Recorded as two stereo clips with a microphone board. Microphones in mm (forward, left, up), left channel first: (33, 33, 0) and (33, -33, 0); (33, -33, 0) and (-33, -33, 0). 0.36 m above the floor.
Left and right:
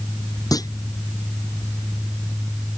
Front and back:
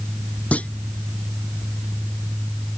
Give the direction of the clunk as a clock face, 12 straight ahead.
10 o'clock.